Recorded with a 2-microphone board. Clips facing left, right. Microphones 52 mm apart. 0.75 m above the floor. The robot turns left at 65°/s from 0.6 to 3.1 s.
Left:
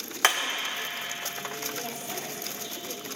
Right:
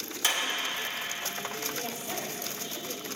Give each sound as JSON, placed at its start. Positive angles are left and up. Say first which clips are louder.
{"t": 0.2, "sound": "hammering", "louder": "left 6 dB", "side_deg": 60, "distance_m": 1.3}
{"t": 1.8, "sound": "a woman speaking", "louder": "even", "azimuth_deg": -5, "distance_m": 3.5}